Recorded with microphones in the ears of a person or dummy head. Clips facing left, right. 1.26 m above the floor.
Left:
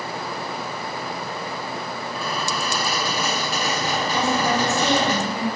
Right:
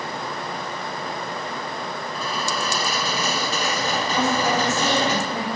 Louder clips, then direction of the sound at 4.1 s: Even; 20° left (ahead or behind).